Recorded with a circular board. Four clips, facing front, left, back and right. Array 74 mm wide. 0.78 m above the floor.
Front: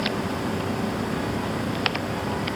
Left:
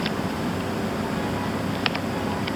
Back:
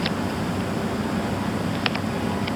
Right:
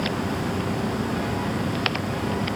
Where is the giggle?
I don't hear a giggle.